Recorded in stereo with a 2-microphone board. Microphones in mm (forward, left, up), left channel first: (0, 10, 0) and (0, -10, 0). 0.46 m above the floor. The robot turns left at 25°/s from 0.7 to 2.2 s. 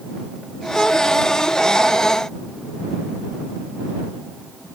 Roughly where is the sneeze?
No sneeze in this recording.